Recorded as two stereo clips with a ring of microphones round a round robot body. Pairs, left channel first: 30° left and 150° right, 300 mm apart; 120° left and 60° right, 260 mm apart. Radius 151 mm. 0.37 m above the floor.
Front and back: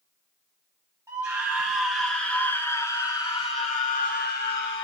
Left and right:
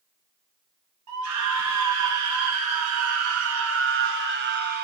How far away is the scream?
About 3 m.